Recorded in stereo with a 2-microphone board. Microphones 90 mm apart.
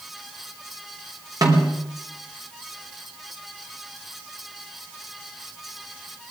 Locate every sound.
1.4 s a snare drum: 45° right (ahead or behind), 3.5 m